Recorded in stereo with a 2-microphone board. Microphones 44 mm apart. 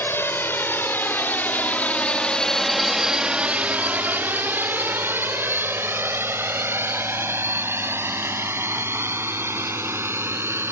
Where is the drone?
60° left (ahead or behind); by 10.7 s 70° right (ahead or behind).